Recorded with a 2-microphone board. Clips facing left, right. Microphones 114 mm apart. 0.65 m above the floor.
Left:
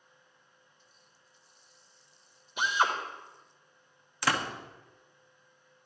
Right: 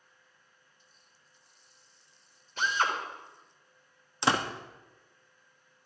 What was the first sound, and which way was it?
A drill, 15° left (ahead or behind).